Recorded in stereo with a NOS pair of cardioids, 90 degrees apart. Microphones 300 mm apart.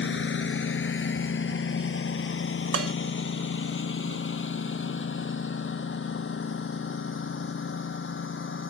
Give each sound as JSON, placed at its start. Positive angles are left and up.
{"t": 0.0, "sound": "a lawn mower", "azimuth_deg": 40}
{"t": 2.7, "sound": "dishes clattering", "azimuth_deg": -50}